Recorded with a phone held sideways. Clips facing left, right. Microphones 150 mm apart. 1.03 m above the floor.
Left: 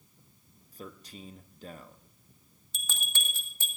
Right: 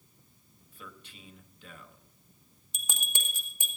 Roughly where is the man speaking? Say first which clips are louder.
Left 6 dB; left.